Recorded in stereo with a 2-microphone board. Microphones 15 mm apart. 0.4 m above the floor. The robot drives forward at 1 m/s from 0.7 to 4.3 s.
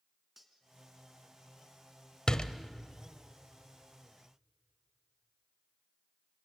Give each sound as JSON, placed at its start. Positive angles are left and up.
{"t": 0.4, "sound": "cutlery clinking", "side_deg": -15, "distance_m": 3.0}
{"t": 2.3, "sound": "a door slam", "side_deg": 55, "distance_m": 1.2}